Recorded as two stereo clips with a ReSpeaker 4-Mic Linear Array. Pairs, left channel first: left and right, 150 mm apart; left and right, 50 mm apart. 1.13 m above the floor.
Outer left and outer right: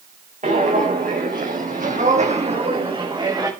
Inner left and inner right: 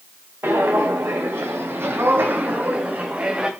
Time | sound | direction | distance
0.4 | footsteps | 60° right (ahead or behind) | 3 m